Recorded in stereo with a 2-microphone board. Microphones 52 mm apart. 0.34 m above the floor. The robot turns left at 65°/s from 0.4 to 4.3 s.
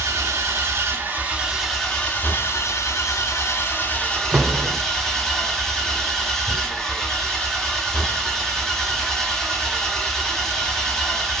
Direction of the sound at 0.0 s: 100° right.